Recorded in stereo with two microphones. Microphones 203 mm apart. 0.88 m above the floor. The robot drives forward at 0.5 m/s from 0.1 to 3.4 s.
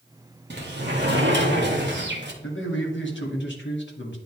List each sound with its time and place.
0.5 s a sliding door: 55° right (ahead or behind), 1.7 m; by 2.3 s 60° right (ahead or behind), 1.6 m
2.4 s a man speaking: 70° left (ahead or behind), 1.8 m; by 4.2 s 65° left (ahead or behind), 2.0 m